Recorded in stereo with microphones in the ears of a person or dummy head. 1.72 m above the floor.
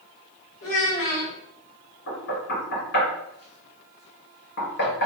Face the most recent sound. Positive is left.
turn(degrees=60)  # may be behind; listen again after turning